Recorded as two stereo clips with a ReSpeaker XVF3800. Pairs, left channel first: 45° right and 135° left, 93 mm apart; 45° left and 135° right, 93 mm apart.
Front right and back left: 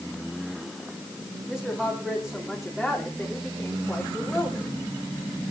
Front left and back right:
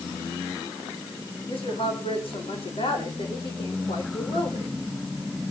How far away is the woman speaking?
About 7 m.